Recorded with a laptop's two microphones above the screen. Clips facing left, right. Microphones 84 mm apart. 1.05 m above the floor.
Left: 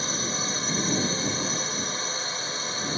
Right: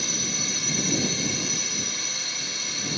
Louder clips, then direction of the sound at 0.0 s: Left 3 dB; 35° left (ahead or behind).